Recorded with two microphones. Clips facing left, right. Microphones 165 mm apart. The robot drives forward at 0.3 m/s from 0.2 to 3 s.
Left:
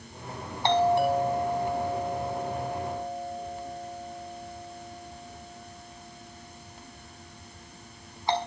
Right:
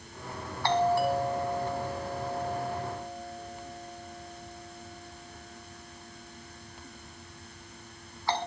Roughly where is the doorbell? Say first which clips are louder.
Left 3 dB; left.